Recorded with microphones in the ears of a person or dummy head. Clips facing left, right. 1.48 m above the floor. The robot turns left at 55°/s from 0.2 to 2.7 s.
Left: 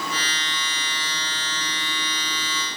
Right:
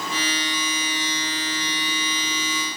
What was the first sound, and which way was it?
Only background noise.